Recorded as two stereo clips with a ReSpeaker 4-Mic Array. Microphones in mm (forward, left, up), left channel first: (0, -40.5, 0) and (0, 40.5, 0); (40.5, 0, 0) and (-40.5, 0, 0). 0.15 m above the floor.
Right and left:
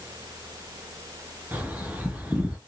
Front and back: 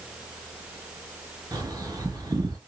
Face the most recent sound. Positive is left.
turn(degrees=155)